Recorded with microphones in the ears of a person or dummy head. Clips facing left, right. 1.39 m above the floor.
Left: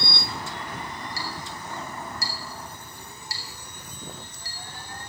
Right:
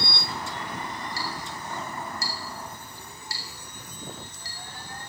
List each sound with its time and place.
1.2 s a clink: 70° left (ahead or behind), 2.5 m